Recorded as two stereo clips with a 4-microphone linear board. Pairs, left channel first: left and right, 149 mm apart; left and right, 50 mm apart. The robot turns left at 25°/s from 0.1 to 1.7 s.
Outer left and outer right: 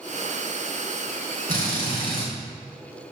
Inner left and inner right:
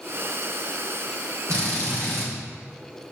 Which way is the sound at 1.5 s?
75° right (ahead or behind).